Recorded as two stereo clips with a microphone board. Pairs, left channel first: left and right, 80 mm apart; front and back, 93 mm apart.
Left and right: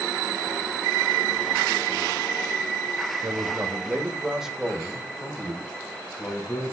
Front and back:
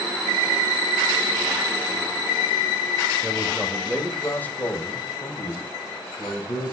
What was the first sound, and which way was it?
A man speaking, 95° right.